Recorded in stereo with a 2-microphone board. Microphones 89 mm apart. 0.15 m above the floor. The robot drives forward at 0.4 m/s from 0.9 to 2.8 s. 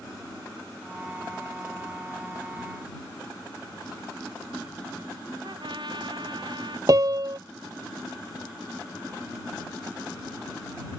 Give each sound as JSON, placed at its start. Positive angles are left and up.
{"t": 5.4, "sound": "a trumpet", "side_deg": -65}
{"t": 6.9, "sound": "a piano", "side_deg": -50}